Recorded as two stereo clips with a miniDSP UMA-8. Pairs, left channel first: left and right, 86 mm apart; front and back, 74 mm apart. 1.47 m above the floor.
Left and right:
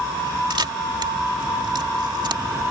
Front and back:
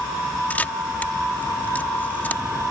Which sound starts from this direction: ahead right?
A camera shutter, at 0.5 s.